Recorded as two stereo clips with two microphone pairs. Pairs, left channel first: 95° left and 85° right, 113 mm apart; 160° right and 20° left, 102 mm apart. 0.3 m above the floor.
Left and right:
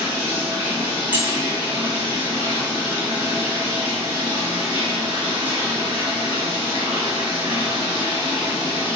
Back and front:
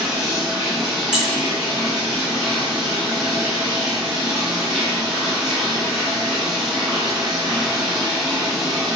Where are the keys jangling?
35° right, 0.6 m.